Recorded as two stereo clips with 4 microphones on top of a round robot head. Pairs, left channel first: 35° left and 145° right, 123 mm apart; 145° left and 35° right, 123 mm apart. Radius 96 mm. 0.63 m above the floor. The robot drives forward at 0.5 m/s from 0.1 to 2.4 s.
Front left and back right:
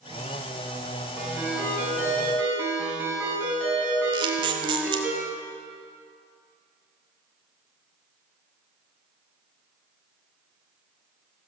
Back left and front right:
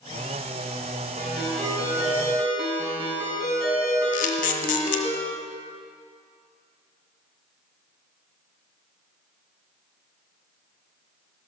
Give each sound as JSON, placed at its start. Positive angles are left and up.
{"t": 1.2, "sound": "a ringtone", "azimuth_deg": -65, "distance_m": 5.0}
{"t": 4.1, "sound": "a camera shutter", "azimuth_deg": 165, "distance_m": 0.6}